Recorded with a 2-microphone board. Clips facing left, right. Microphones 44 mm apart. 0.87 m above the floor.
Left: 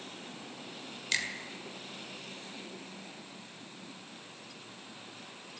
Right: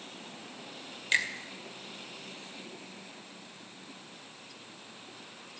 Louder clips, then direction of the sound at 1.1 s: Right 5 dB; 20° right (ahead or behind).